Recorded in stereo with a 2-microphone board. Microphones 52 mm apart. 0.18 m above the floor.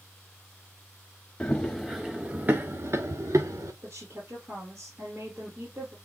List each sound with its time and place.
1.4 s running footsteps: 20° left (ahead or behind), 1.0 m; by 3.7 s 70° right (ahead or behind), 1.4 m
3.8 s a woman speaking: 45° right (ahead or behind), 3.5 m